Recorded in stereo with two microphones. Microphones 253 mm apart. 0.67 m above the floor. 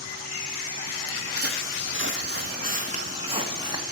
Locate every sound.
1.1 s footsteps: 60° right (ahead or behind), 1.4 m; by 3.8 s 15° right (ahead or behind), 2.0 m